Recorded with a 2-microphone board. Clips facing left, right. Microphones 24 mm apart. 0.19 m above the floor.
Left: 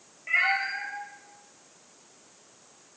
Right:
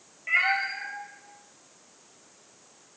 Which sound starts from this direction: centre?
A cat meowing, at 0.3 s.